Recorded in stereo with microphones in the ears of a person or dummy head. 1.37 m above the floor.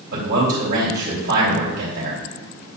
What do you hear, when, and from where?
0.1 s a man speaking: 60° right (ahead or behind), 3.5 m